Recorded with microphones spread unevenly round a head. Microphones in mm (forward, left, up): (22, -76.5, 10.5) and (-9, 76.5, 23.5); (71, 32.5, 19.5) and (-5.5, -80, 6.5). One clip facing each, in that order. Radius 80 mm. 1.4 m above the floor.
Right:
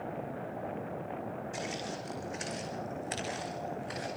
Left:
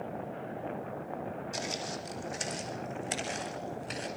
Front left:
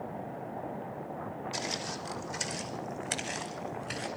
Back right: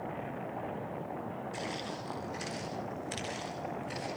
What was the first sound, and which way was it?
Footsteps, 60° left.